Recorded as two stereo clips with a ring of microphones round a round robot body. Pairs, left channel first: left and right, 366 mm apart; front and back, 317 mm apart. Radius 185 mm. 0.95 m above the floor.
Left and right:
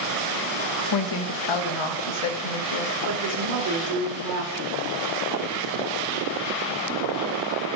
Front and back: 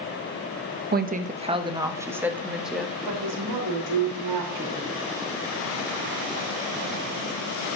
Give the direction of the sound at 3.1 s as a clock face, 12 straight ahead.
5 o'clock.